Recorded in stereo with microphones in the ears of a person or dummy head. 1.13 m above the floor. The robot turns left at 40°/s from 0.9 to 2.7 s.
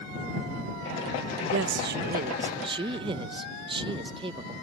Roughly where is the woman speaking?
Right.